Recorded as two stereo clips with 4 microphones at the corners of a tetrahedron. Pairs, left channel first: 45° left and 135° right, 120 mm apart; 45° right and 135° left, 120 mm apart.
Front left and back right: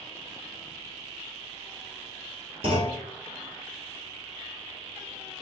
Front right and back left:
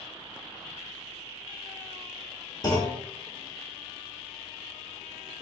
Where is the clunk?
100° right, 1.2 m.